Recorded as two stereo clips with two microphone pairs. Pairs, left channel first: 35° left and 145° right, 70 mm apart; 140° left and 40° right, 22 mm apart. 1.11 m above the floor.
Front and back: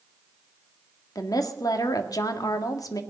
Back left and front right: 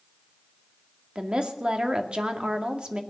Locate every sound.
1.1 s a woman speaking: 5° left, 2 m